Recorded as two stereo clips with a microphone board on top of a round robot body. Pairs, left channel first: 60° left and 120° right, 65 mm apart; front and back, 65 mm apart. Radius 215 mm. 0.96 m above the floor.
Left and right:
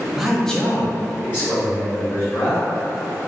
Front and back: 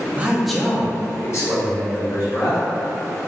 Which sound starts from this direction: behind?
A man speaking, at 0.2 s.